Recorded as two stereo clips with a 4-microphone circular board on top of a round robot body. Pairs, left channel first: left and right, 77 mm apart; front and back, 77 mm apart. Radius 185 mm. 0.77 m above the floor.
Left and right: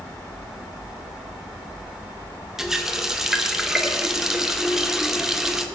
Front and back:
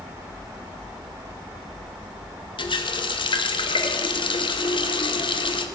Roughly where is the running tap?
Ahead.